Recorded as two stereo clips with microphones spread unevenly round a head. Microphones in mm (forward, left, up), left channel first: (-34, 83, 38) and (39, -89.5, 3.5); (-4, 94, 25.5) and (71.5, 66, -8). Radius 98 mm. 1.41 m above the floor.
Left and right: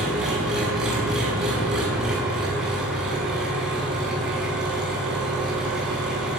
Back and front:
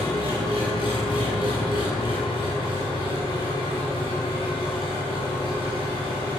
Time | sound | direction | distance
0.0 | an engine running | 155° right | 7 m